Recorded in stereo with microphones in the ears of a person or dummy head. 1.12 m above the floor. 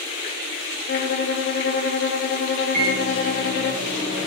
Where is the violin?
45° left (ahead or behind), 0.5 m.